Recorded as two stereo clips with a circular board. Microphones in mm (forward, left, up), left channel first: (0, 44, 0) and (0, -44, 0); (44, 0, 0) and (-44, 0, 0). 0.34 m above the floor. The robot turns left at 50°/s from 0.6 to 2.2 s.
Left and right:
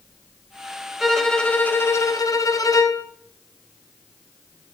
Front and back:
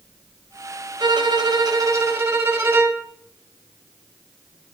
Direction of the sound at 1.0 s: 175° right.